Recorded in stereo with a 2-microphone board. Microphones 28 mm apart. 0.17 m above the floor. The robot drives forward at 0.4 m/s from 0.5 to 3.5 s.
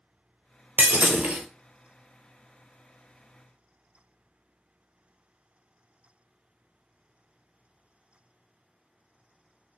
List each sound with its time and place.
0.8 s breaking glass: 75° right (ahead or behind), 0.7 m